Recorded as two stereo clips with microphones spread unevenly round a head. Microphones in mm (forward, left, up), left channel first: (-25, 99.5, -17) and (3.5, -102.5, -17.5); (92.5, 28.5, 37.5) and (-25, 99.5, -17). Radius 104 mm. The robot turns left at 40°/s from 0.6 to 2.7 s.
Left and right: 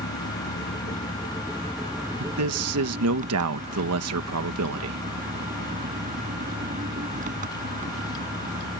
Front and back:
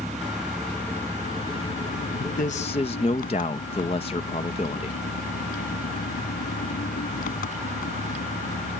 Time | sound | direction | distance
0.0 | an engine running | 55° left | ?
2.2 | a man speaking | 70° right | ?